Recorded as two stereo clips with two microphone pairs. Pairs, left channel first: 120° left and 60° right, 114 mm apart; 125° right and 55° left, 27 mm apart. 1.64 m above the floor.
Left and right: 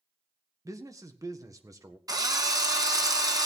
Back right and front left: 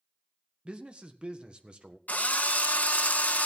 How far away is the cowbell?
I don't hear a cowbell.